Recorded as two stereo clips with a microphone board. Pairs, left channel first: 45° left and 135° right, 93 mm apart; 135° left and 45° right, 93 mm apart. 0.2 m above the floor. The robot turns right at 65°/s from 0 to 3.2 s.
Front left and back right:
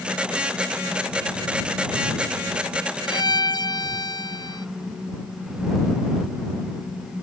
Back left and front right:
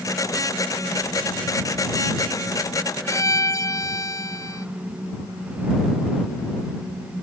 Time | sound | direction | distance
3.0 | a violin | 75° left | ?